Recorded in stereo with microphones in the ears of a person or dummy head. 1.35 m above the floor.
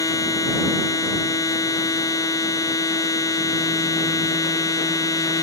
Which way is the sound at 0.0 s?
25° left (ahead or behind).